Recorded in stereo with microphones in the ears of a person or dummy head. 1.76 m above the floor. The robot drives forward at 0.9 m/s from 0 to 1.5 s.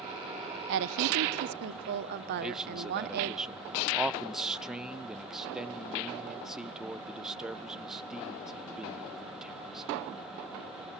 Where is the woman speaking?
65° right (ahead or behind), 1.0 m; by 3.4 s 50° right (ahead or behind), 1.2 m.